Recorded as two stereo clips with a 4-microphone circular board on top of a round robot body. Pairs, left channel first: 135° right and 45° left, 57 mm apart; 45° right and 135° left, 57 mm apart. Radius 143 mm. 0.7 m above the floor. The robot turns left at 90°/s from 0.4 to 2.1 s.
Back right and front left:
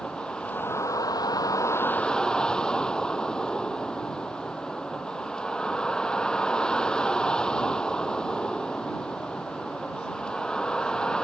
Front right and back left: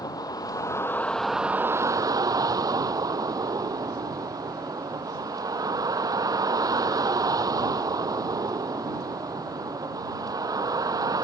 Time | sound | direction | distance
0.0 | a vehicle | 60° right | ?